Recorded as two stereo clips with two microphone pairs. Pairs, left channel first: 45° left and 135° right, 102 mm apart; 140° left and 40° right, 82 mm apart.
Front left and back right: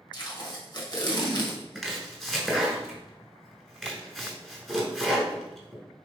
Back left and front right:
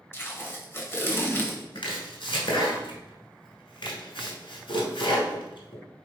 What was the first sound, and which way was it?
Tape being pulled, 85° left.